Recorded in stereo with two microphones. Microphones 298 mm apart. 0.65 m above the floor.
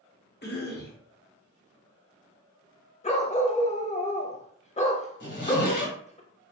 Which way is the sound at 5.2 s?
75° left (ahead or behind).